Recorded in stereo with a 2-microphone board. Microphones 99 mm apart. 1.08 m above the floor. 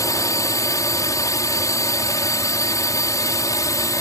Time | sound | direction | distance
0.0 | a drone | 35° left (ahead or behind) | ?